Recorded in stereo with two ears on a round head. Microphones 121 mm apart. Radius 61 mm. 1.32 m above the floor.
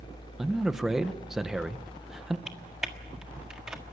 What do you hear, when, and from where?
0.4 s a man speaking: 5° right (ahead or behind), 1.1 m
2.5 s typing on a keyboard: 5° right (ahead or behind), 1.6 m